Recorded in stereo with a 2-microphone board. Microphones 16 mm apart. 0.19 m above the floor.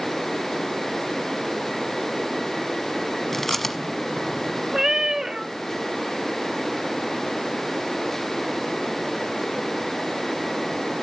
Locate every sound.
3.3 s chewing: 20° left (ahead or behind), 1.2 m
4.7 s a cat meowing: 35° right (ahead or behind), 0.7 m